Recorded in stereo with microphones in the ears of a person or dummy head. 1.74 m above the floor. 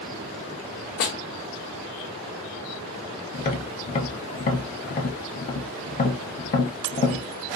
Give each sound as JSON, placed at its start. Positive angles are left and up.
{"t": 1.0, "sound": "a snare drum", "side_deg": 60, "distance_m": 0.6}
{"t": 3.3, "sound": "tapping", "side_deg": 45, "distance_m": 0.6}